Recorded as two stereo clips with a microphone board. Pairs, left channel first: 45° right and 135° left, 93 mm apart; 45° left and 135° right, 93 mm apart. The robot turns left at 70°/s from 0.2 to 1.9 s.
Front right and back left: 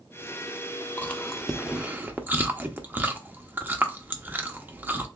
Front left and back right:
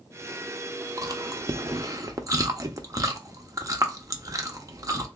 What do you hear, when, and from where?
1.0 s chewing: 100° right, 0.6 m; by 5.1 s 165° right, 0.6 m